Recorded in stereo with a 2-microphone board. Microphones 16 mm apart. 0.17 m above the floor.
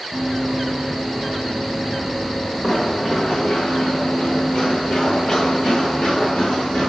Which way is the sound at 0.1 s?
35° right (ahead or behind).